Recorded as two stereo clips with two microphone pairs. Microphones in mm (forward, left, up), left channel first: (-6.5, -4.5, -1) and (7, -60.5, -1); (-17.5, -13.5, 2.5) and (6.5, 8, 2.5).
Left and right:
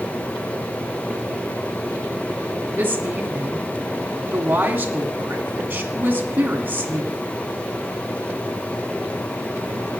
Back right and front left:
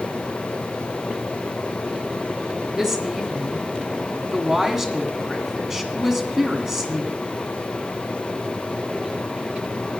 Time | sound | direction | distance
2.8 | a woman speaking | 30° right | 2.0 m